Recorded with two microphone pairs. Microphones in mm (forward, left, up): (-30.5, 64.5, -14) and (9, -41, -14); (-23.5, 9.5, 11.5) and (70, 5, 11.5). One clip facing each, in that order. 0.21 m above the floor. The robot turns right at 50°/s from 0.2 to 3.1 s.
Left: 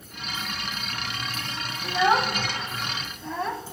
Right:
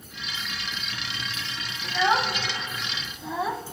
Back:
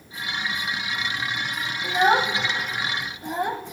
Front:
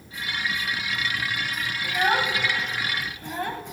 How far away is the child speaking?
About 0.5 m.